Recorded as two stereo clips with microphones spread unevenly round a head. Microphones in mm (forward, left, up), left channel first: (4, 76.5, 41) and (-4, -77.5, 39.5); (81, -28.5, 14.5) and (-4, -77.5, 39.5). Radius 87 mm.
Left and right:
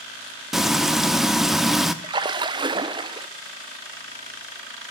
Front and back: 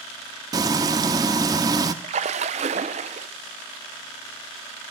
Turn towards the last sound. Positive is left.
turn(degrees=-155)